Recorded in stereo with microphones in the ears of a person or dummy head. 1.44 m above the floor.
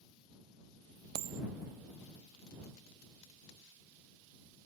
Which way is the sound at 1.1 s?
60° right (ahead or behind).